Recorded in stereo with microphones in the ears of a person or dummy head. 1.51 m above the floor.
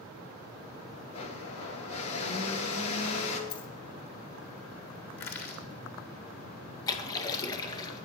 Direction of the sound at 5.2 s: 55° left (ahead or behind).